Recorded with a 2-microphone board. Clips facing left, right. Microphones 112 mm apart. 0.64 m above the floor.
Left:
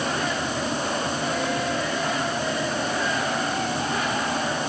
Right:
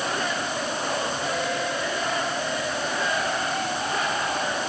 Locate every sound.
Only background noise.